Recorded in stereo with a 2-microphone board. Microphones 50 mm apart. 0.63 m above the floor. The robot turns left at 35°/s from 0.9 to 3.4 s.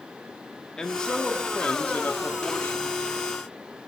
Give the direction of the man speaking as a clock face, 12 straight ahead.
7 o'clock.